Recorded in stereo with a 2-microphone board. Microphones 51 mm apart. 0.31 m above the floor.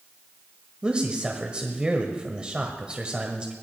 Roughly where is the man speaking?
Right.